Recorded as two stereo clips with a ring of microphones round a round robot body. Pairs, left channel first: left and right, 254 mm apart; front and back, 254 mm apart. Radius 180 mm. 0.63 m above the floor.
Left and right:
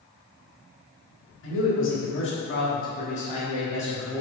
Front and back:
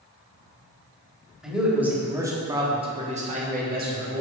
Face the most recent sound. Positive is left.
turn(degrees=175)